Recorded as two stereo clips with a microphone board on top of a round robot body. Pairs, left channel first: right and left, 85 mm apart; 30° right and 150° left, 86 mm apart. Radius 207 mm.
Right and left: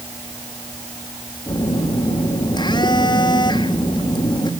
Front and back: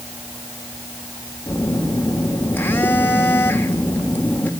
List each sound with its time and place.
1.5 s a phone buzzing: 95° right, 2.5 m